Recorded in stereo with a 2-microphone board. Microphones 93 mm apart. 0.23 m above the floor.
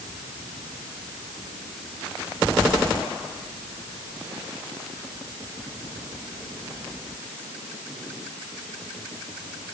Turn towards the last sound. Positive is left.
No sound to turn to.